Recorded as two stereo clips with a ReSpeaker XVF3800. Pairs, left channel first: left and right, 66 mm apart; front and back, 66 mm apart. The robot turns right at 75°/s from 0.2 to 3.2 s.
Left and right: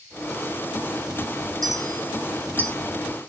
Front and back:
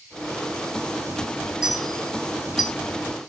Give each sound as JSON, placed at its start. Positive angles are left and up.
{"t": 1.6, "sound": "a clink", "azimuth_deg": -100, "distance_m": 1.1}